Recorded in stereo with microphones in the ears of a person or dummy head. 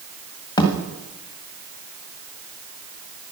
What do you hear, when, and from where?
0.6 s a thud: 20° left (ahead or behind), 1.6 m